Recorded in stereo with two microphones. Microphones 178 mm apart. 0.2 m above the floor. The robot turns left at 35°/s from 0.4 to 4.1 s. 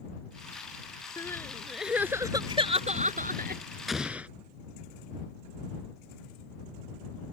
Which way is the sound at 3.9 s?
Centre (ahead or behind).